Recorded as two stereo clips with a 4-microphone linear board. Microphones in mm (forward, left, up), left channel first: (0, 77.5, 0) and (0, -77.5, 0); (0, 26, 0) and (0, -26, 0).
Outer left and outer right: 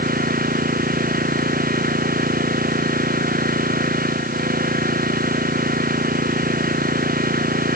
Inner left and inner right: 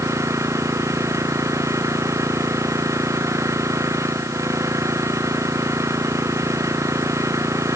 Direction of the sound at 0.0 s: 70° right (ahead or behind).